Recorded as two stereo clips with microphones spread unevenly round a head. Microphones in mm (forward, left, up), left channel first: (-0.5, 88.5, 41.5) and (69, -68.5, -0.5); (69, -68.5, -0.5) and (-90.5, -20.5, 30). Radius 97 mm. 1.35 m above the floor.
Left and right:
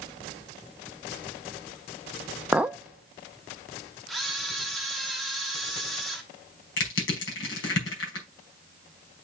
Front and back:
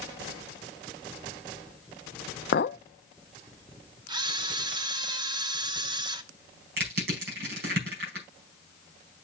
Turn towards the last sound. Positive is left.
turn(degrees=130)